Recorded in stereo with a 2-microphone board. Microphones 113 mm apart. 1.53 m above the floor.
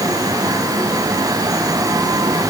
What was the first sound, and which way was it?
Only background noise.